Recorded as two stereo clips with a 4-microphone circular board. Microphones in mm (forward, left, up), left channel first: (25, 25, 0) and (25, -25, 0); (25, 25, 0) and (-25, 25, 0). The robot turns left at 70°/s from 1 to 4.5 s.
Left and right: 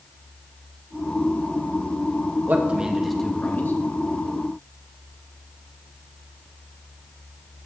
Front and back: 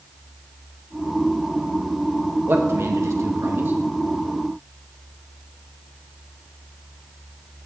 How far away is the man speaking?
About 1.5 m.